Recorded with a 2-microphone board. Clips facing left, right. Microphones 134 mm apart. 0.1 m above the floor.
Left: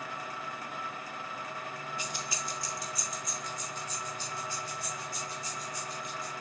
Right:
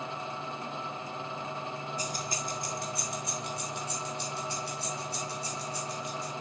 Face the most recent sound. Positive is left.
turn(degrees=-70)  # may be behind; listen again after turning